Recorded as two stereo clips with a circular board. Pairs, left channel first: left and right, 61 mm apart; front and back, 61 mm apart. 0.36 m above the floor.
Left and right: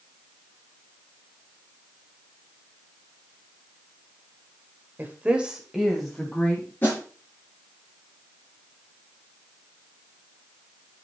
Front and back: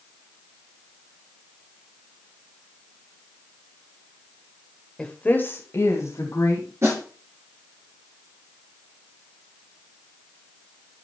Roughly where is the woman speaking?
Ahead right.